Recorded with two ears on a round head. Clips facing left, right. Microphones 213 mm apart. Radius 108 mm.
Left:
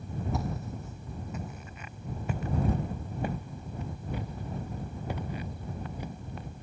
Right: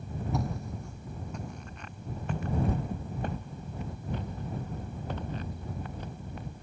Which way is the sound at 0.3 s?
Centre (ahead or behind).